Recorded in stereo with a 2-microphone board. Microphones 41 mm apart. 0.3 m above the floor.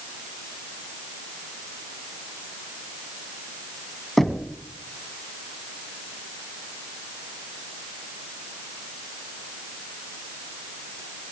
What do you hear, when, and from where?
4.2 s knocking: 5° left (ahead or behind), 2 m